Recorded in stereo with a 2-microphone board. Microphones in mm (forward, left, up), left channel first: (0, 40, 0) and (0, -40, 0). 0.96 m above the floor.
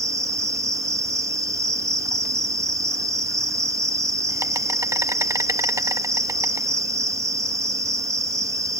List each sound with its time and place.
0.0 s an insect: 40° right (ahead or behind)